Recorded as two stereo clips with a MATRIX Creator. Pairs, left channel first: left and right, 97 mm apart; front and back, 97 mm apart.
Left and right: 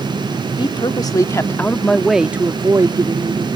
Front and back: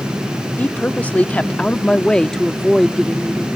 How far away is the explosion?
No explosion in this recording.